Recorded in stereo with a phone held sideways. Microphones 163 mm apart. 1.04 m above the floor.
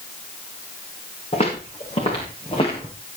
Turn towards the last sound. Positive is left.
turn(degrees=35)  # may be behind; listen again after turning